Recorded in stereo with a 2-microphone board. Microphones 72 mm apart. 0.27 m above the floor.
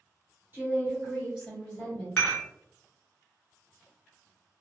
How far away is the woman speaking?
About 1.7 m.